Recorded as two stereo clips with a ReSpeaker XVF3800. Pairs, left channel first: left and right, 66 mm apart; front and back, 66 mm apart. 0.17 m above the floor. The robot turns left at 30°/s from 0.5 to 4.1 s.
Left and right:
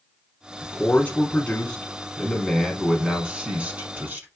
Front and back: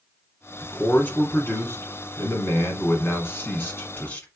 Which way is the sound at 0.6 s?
55° left.